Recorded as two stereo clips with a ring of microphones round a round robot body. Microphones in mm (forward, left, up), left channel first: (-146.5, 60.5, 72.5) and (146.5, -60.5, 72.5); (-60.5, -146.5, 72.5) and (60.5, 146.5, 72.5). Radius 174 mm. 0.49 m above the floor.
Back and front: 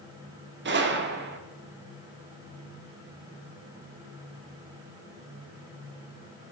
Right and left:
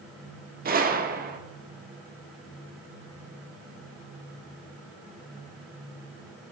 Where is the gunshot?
15° left, 0.9 m.